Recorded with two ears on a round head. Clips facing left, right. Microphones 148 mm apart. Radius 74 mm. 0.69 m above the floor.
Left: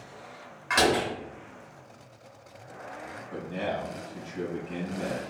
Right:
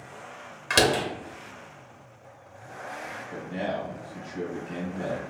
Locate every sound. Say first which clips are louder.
0.7 s a door slam: right 1 dB; 40° right (ahead or behind), 1.1 m
3.3 s a man speaking: right 1 dB; 20° right (ahead or behind), 1.8 m